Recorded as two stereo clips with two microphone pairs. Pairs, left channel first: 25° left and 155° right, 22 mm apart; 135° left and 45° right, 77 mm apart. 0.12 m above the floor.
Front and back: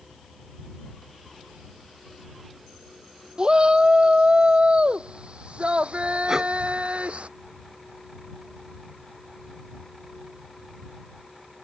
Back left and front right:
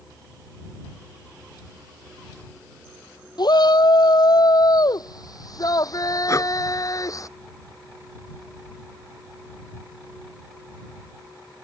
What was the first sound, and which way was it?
A shout, 155° left.